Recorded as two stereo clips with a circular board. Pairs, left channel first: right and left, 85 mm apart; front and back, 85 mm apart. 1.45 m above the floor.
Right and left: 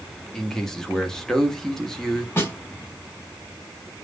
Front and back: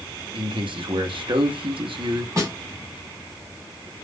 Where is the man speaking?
175° right, 0.7 m.